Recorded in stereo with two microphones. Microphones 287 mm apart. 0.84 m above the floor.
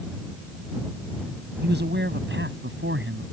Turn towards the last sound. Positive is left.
turn(degrees=-45)  # may be behind; listen again after turning